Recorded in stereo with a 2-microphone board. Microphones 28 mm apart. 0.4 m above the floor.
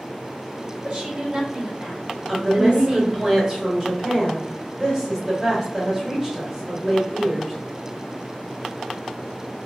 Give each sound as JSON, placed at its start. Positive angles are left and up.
{"t": 0.8, "sound": "a woman speaking", "side_deg": -30, "distance_m": 1.7}
{"t": 2.3, "sound": "a woman speaking", "side_deg": -10, "distance_m": 1.4}